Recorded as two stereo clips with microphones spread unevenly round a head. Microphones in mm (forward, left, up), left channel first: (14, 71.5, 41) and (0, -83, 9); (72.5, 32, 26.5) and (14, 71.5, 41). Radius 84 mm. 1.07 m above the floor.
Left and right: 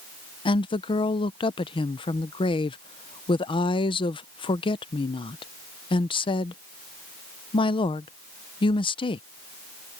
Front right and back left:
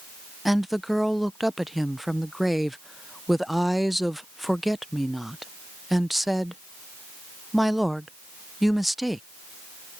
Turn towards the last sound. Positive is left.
turn(degrees=35)